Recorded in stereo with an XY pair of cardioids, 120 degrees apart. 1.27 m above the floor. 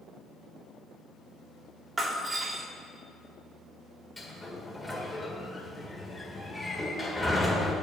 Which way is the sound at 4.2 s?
15° left.